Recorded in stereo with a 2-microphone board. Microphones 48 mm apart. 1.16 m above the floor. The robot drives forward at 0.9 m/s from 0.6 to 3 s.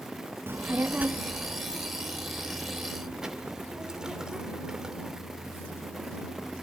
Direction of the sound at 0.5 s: 50° right (ahead or behind).